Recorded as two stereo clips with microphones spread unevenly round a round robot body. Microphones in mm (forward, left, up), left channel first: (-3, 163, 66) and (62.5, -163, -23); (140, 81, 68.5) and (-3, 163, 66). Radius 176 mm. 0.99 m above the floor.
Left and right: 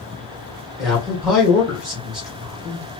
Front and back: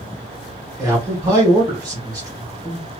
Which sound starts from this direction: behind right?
A man speaking, at 0.8 s.